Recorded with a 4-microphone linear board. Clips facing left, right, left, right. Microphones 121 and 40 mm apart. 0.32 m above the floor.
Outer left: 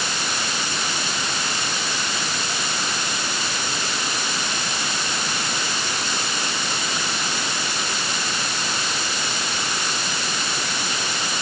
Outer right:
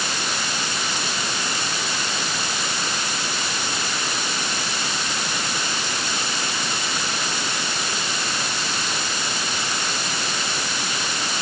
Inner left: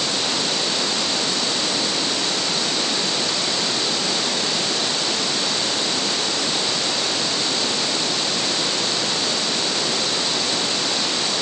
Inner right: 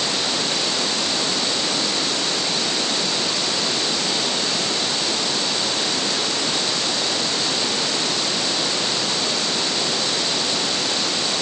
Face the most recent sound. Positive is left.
No sound to turn to.